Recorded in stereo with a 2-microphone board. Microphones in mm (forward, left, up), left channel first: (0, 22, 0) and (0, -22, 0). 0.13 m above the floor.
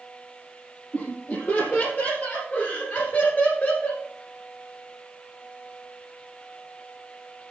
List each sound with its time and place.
0.9 s laughter: 40° left (ahead or behind), 3.5 m; by 4.0 s 35° left (ahead or behind), 2 m